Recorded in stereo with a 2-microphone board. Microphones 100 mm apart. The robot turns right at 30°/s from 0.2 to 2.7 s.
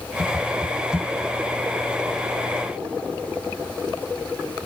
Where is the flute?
No flute in this recording.